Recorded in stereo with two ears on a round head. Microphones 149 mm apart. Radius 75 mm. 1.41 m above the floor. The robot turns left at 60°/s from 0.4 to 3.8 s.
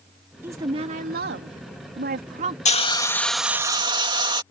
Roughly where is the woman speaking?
Ahead.